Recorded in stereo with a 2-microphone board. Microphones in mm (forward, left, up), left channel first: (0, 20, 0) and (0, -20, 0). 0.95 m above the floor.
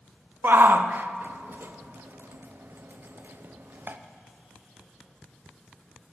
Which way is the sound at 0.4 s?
60° right (ahead or behind).